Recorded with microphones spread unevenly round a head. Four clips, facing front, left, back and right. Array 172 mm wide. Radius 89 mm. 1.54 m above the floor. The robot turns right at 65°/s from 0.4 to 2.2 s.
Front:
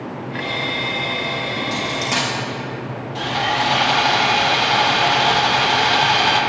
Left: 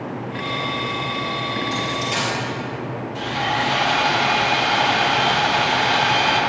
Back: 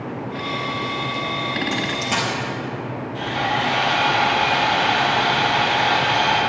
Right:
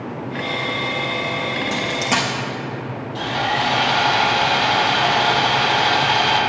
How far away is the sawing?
About 3.5 m.